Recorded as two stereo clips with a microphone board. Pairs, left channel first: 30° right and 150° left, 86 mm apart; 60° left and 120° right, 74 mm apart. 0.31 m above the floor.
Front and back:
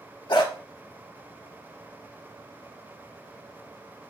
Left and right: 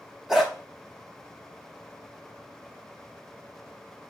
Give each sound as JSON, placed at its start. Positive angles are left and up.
{"t": 0.3, "sound": "a dog barking", "azimuth_deg": -35, "distance_m": 0.9}